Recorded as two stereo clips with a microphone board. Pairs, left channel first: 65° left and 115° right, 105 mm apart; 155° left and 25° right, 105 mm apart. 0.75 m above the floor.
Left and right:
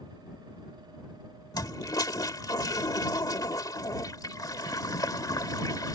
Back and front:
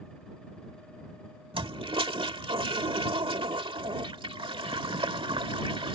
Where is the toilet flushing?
10° left.